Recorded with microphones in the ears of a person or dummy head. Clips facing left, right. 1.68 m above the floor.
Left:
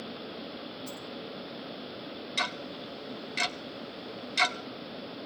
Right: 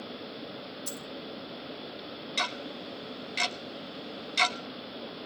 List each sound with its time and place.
0.9 s a dropped coin: 55° right (ahead or behind), 2 m
2.4 s ticking: 5° left (ahead or behind), 0.6 m